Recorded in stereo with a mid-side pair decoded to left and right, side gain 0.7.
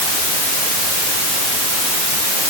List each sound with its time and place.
Only background noise.